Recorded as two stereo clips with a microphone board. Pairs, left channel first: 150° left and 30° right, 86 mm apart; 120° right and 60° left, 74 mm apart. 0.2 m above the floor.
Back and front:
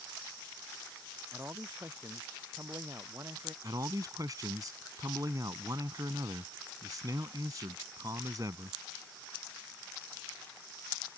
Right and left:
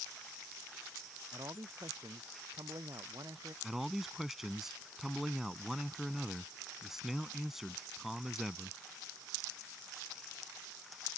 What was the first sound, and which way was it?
A man speaking, 25° left.